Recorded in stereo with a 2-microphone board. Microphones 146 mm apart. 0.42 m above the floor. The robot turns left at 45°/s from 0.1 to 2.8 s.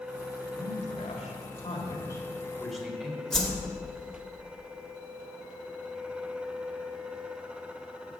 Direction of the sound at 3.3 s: 5° left (ahead or behind).